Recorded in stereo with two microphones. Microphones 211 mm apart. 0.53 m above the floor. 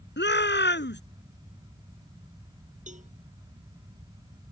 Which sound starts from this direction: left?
A shout, at 0.2 s.